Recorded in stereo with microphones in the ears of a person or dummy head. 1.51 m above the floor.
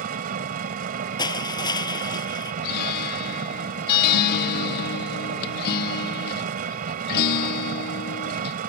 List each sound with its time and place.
0.0 s an engine running: 45° right (ahead or behind)
1.2 s crushing: 25° left (ahead or behind)
2.6 s a guitar: 55° left (ahead or behind)